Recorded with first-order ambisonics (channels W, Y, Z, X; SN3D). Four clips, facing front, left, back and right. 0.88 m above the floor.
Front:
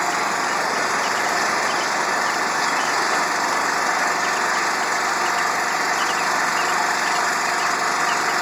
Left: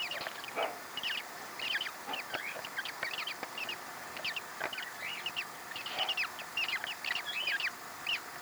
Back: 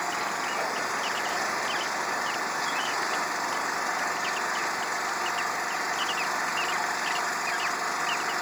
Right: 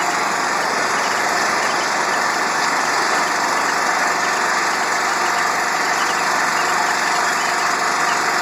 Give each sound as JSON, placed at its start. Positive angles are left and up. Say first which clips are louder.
{"t": 0.0, "sound": "an engine running", "louder": "right 21 dB, front 8 dB", "azimuth_deg": -65}